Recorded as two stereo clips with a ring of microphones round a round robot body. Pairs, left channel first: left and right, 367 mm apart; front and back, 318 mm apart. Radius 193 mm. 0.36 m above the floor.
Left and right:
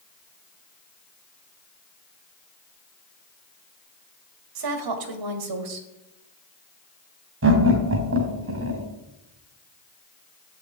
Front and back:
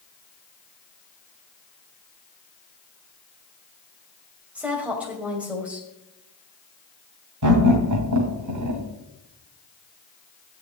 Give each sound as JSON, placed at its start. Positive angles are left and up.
{"t": 4.5, "sound": "a woman speaking", "azimuth_deg": -95, "distance_m": 2.0}
{"t": 7.4, "sound": "laughter", "azimuth_deg": -145, "distance_m": 2.5}